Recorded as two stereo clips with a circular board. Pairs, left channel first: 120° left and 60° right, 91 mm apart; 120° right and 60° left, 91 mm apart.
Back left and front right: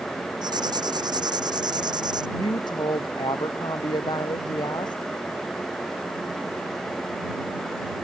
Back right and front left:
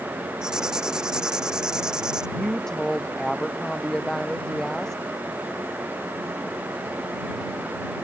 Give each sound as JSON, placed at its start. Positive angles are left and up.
{"t": 0.4, "sound": "writing", "azimuth_deg": -20}
{"t": 2.4, "sound": "a woman speaking", "azimuth_deg": 155}